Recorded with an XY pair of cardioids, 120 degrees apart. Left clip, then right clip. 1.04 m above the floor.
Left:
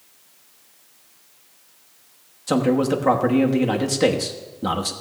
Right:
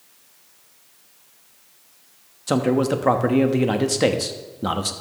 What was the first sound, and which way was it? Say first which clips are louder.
A man speaking: even; 10° right.